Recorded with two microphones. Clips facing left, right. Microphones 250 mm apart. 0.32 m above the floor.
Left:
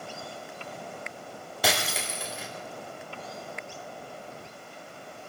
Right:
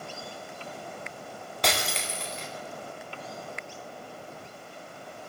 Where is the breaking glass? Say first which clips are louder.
Left 1 dB; 5° left (ahead or behind), 7 m.